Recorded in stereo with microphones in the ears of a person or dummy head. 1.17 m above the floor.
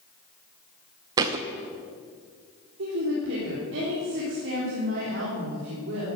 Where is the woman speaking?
60° right (ahead or behind), 3.5 m.